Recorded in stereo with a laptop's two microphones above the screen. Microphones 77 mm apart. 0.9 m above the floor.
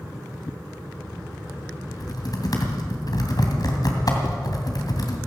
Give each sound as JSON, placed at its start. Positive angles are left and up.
{"t": 1.9, "sound": "typing on a keyboard", "side_deg": 55, "distance_m": 2.5}